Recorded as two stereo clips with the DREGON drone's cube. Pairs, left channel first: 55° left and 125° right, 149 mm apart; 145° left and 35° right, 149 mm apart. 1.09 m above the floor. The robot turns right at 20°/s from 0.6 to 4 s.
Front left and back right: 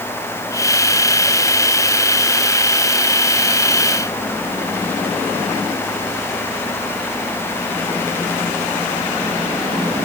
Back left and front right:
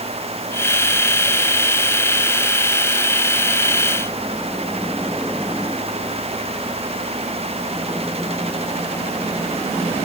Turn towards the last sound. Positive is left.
No sound to turn to.